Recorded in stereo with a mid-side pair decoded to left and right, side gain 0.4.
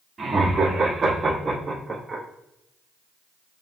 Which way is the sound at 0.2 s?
45° right.